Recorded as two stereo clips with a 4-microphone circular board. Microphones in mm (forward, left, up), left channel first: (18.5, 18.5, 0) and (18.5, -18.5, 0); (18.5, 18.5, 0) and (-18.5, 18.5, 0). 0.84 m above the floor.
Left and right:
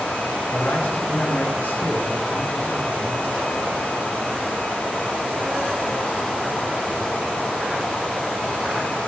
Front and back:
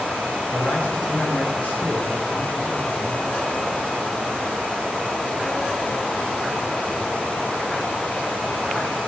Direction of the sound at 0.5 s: 45° left.